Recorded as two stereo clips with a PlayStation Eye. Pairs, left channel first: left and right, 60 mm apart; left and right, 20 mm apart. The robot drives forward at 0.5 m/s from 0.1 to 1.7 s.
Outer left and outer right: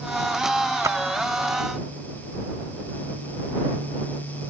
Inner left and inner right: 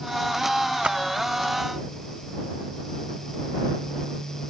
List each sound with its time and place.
0.8 s a splash: 65° right (ahead or behind)